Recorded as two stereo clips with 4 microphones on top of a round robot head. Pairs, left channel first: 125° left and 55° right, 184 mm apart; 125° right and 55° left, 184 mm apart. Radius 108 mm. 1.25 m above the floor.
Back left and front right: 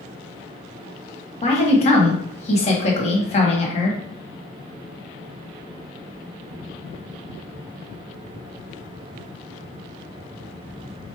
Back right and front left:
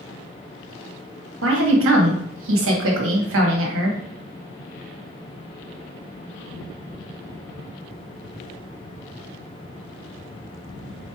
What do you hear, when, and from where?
1.4 s a woman speaking: 70° left, 1.1 m